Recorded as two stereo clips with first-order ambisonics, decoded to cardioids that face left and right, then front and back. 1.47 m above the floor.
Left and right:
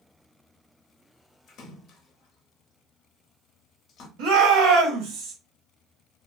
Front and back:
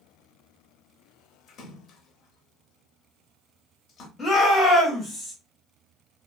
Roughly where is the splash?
Ahead left.